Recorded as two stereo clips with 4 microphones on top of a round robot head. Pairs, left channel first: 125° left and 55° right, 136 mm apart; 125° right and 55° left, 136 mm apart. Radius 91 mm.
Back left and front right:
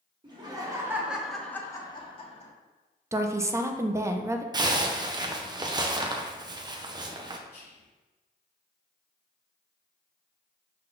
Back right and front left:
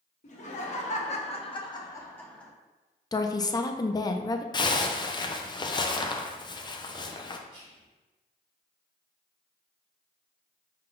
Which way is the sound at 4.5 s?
90° right.